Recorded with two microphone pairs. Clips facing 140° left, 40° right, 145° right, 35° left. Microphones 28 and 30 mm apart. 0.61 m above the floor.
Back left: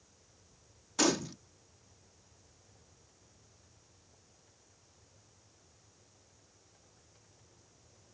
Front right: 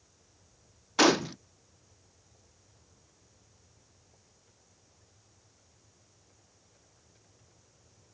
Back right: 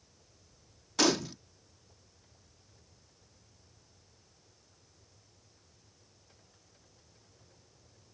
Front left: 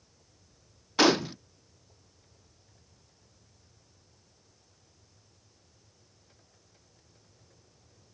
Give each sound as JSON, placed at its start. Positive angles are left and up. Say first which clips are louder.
{"t": 1.0, "sound": "a gunshot", "louder": "front right 7 dB, front left 5 dB", "azimuth_deg": -15}